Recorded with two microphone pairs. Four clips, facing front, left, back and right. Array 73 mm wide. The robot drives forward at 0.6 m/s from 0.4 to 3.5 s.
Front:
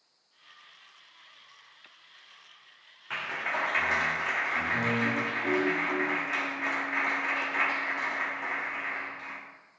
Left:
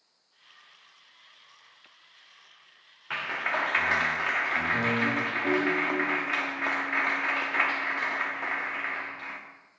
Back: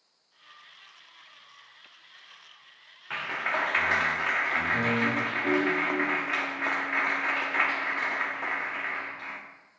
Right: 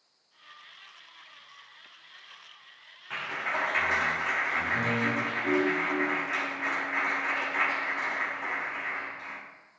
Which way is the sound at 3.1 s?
105° left.